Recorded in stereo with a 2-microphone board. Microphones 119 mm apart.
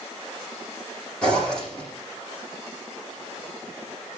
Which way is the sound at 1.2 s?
5° left (ahead or behind).